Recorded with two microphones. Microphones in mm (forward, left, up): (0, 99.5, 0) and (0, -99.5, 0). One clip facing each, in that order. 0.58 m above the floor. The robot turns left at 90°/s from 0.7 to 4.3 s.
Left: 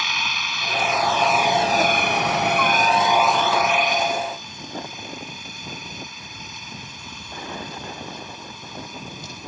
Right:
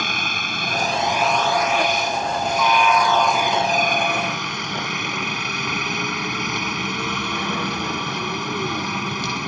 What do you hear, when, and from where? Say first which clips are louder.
0.0 s a helicopter: right 4 dB; 125° right; by 9.5 s 90° right